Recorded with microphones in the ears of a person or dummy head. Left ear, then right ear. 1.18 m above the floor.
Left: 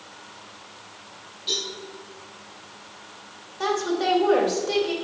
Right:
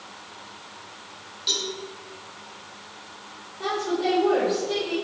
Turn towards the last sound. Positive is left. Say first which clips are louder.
# left 2 dB
turn(degrees=60)  # may be behind; listen again after turning